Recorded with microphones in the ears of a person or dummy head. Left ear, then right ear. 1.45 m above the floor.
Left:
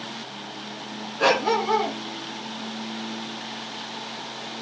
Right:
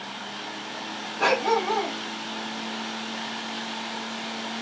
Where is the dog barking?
10° right (ahead or behind), 4 m.